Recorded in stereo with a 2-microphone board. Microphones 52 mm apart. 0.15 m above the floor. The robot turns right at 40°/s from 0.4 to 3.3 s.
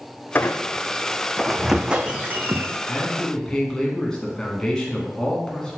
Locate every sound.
0.3 s a squeak: 135° left, 0.6 m; by 2.8 s 130° right, 0.6 m
2.9 s a man speaking: 15° left (ahead or behind), 1.5 m